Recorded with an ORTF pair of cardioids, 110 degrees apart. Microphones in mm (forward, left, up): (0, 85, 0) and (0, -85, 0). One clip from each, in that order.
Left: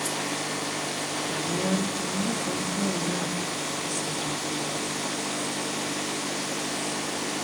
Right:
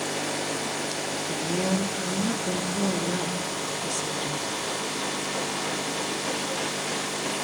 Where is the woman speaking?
20° right, 2.5 m.